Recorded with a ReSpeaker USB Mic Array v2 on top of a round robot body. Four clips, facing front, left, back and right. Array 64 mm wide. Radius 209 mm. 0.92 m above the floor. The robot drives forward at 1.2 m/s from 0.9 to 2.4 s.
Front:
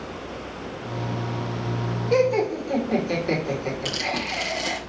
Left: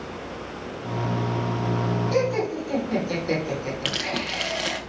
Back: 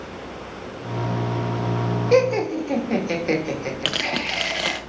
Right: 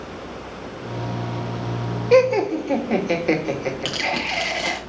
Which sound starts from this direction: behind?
Tearing paper, at 3.9 s.